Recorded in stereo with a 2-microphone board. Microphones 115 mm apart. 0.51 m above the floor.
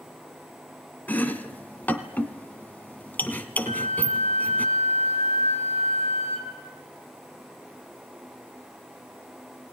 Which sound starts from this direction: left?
A flute, at 3.6 s.